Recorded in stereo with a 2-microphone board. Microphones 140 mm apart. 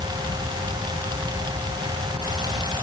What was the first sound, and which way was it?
Only background noise.